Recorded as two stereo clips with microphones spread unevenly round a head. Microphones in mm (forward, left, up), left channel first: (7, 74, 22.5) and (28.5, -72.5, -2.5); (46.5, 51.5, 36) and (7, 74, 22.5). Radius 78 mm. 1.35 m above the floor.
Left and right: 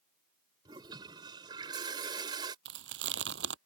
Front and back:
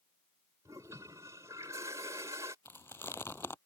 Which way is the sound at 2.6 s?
100° right.